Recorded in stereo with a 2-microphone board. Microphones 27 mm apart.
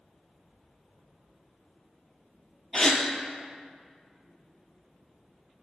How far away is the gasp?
About 0.8 m.